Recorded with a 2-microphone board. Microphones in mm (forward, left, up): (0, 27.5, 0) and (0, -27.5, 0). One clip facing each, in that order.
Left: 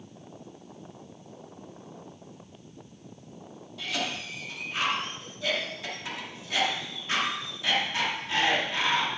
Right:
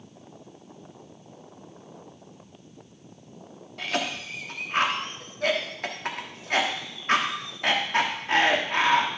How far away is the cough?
About 1.4 m.